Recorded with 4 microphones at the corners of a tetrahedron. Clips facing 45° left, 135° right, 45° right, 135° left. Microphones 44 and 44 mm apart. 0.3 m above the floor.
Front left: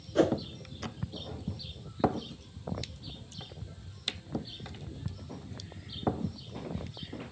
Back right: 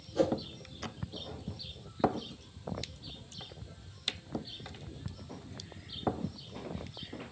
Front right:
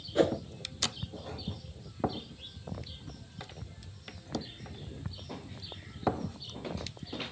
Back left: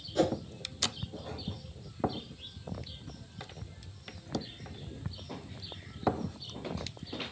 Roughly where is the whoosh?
Ahead.